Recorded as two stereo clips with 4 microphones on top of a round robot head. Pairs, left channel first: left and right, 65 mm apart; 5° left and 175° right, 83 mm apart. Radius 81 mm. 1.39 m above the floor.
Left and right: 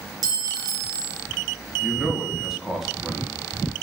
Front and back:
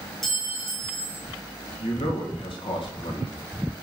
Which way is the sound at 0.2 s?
85° right.